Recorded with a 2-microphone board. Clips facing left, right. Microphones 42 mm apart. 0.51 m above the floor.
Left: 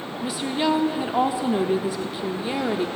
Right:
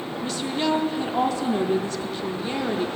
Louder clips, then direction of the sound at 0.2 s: Left 2 dB; 10° left (ahead or behind).